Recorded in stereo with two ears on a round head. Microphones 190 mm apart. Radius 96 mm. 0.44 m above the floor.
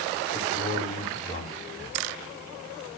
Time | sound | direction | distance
0.3 | a man speaking | 30° left (ahead or behind) | 2 m